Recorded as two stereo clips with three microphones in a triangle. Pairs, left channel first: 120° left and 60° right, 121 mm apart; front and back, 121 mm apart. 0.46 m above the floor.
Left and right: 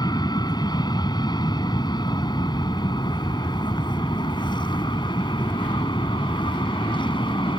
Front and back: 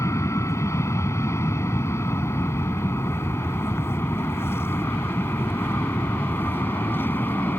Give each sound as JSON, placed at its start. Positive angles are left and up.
{"t": 0.0, "sound": "an aircraft", "azimuth_deg": 65}